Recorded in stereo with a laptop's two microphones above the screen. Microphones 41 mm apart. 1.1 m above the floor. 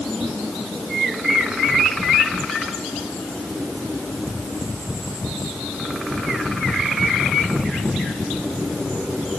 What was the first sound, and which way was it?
Only background noise.